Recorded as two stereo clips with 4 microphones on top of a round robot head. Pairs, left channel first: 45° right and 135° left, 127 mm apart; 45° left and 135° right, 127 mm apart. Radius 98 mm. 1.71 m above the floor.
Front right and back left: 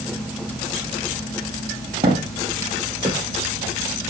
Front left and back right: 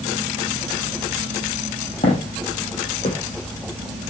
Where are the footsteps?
85° left, 3 m; by 3.2 s 75° left, 3.5 m.